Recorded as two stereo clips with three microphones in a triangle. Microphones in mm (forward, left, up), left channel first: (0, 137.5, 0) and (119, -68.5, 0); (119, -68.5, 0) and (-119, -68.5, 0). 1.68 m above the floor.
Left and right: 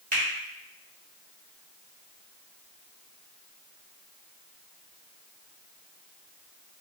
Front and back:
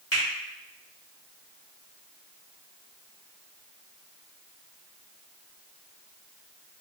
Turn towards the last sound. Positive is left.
turn(degrees=-5)